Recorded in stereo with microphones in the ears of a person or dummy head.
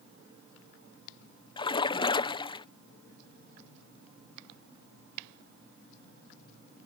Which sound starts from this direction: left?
A splash, at 1.6 s.